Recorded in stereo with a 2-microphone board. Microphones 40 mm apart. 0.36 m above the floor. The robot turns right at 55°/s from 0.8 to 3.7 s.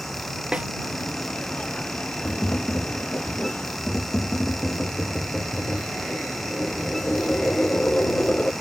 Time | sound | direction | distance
0.5 | a snare drum | 25° right (ahead or behind) | ?
2.2 | tapping | 60° left | ?